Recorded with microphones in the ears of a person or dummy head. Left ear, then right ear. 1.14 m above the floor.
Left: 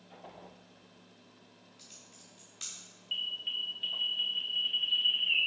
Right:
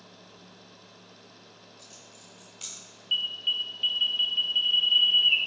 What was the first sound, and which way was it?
Typing on a keyboard, 15° left (ahead or behind).